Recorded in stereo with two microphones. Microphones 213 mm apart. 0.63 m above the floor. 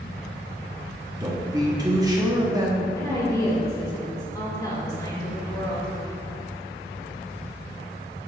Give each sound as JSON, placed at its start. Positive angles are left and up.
{"t": 1.2, "sound": "a man speaking", "side_deg": -20, "distance_m": 0.8}
{"t": 3.0, "sound": "a woman speaking", "side_deg": 15, "distance_m": 1.7}